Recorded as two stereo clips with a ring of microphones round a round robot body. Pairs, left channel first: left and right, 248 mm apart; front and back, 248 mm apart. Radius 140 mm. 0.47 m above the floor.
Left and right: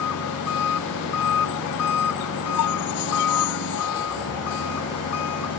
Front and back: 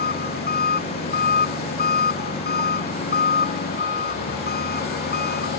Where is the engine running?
50° left.